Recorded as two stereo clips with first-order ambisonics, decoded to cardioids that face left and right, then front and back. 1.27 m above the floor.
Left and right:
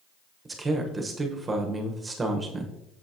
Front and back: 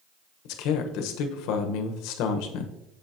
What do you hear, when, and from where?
0.5 s a man speaking: 15° right, 1.2 m